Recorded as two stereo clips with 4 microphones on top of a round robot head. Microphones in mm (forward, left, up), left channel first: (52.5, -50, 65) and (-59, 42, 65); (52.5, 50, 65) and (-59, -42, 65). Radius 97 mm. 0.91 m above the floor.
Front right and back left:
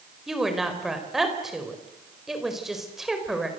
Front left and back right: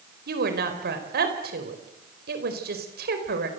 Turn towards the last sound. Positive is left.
turn(degrees=-130)